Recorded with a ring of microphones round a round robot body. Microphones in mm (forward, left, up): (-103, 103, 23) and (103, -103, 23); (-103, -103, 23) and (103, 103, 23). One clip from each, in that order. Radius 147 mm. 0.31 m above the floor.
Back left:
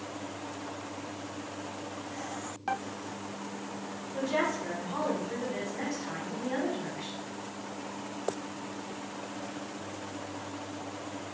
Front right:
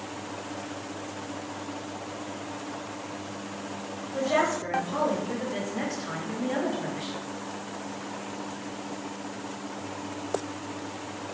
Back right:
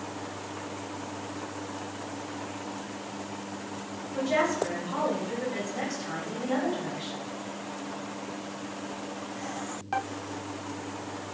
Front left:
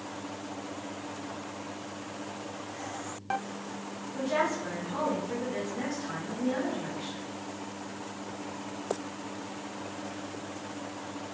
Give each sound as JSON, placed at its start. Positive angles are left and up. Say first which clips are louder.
{"t": 4.1, "sound": "a woman speaking", "louder": "front right 5 dB, back right 3 dB", "azimuth_deg": -85, "distance_m": 1.9}